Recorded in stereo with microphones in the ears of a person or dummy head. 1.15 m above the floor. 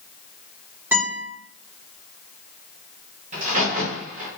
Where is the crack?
40° right (ahead or behind), 1.0 m.